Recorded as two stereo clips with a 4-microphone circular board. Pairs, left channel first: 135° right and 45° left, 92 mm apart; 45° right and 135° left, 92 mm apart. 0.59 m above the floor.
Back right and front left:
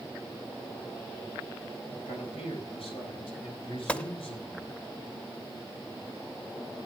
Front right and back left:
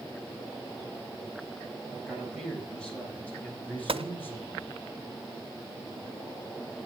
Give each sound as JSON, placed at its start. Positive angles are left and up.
{"t": 2.1, "sound": "a man speaking", "azimuth_deg": -130, "distance_m": 5.5}
{"t": 3.9, "sound": "a gunshot", "azimuth_deg": 150, "distance_m": 0.7}